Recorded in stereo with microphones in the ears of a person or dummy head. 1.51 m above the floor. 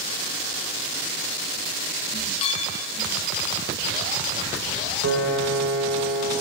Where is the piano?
65° right (ahead or behind), 3 m.